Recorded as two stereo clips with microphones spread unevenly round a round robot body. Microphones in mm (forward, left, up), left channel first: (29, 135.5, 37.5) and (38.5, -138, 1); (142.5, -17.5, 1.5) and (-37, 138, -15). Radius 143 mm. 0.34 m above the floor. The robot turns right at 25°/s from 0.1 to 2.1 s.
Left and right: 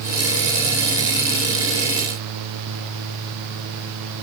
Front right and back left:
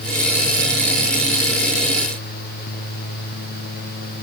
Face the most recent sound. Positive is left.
No sound to turn to.